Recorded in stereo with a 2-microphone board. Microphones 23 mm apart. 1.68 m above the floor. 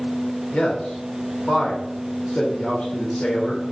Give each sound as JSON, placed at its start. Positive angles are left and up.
{"t": 0.5, "sound": "a man speaking", "side_deg": 70, "distance_m": 1.5}